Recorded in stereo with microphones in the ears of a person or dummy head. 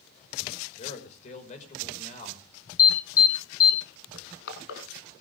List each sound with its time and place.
0.8 s a man speaking: 45° left (ahead or behind), 5.5 m
2.8 s an alarm: 20° left (ahead or behind), 5.5 m
4.1 s crushing: 75° left (ahead or behind), 5 m